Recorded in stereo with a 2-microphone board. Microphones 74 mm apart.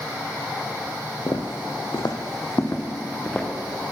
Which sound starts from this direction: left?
Footsteps, at 1.3 s.